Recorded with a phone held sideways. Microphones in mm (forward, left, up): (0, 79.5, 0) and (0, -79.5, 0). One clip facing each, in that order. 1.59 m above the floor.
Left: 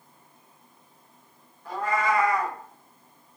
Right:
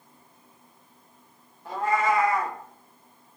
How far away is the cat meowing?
About 1.0 m.